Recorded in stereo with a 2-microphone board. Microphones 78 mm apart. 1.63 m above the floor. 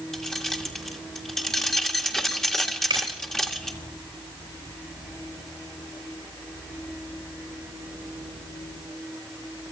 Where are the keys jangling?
5° left (ahead or behind), 1.6 m.